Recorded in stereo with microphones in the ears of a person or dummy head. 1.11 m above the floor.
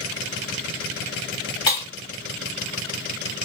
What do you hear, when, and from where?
1.7 s breaking glass: 30° left (ahead or behind), 1.7 m